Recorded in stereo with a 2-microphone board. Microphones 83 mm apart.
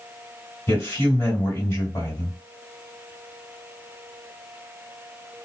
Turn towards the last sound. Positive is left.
turn(degrees=25)  # may be behind; listen again after turning